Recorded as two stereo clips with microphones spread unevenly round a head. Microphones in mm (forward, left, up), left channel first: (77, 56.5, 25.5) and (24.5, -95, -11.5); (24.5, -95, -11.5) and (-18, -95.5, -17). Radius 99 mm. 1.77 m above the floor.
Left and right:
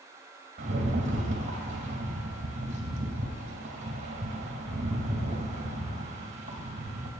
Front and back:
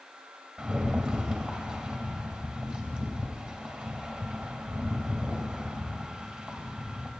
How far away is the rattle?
About 2 m.